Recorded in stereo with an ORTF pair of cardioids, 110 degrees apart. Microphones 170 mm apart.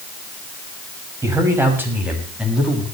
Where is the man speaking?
20° right, 6 m; by 2.9 s straight ahead, 7.5 m.